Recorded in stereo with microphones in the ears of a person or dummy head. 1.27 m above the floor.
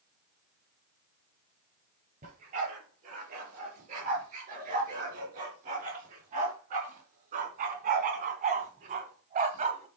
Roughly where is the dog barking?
Right.